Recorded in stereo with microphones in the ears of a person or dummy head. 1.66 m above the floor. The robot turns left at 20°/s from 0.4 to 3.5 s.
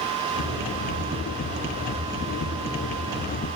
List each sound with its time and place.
Only background noise.